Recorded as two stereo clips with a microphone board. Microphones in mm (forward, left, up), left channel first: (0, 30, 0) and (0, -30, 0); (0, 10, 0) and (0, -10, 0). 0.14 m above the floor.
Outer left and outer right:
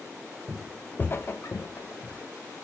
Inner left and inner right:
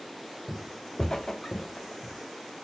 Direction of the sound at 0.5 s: 10° right (ahead or behind).